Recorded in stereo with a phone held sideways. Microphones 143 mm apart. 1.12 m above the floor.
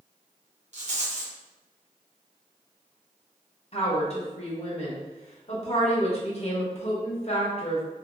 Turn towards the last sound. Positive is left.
turn(degrees=50)  # may be behind; listen again after turning